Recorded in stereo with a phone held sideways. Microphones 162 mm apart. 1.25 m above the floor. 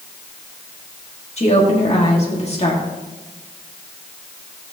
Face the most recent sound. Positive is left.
turn(degrees=40)  # may be behind; listen again after turning